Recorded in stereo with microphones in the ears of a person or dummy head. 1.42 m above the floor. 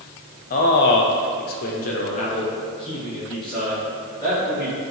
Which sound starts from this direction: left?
A man speaking, at 0.5 s.